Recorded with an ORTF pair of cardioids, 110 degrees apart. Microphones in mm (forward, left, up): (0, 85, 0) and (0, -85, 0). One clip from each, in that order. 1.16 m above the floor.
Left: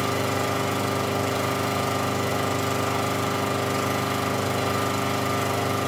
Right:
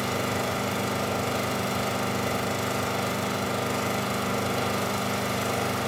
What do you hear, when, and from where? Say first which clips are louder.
0.0 s an engine running: left 3 dB; straight ahead, 5 m